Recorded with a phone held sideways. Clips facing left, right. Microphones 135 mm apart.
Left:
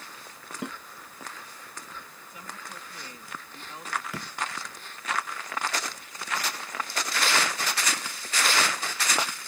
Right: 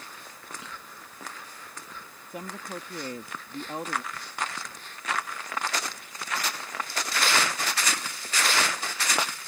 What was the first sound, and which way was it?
A snare drum, 55° left (ahead or behind).